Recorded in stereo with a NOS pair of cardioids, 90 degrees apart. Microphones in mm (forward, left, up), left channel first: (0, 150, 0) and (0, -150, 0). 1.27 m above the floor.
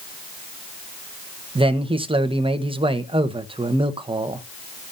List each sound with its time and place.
1.6 s a man speaking: 15° right, 1.1 m